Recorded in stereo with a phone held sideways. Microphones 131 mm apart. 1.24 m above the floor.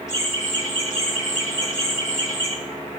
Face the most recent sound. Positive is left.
turn(degrees=65)  # may be behind; listen again after turning